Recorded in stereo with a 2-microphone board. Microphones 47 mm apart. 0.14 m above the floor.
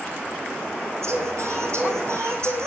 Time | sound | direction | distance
1.0 | singing | 80° right | 4 m